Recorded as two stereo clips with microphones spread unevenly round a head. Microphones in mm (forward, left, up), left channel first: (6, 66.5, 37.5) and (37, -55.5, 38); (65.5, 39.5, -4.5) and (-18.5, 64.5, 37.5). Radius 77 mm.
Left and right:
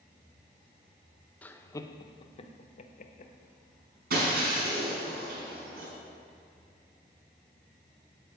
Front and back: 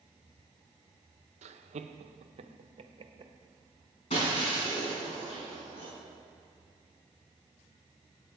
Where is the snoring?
I don't hear snoring.